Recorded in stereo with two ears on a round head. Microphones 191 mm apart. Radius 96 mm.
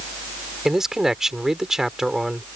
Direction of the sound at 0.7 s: Centre (ahead or behind).